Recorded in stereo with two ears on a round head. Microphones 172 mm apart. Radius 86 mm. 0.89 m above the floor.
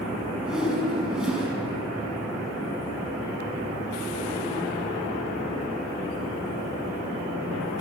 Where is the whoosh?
5° right (ahead or behind), 6.5 m.